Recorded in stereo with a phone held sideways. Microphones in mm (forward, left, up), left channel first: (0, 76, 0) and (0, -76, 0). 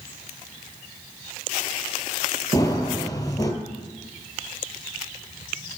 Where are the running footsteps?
25° left (ahead or behind), 1.7 m.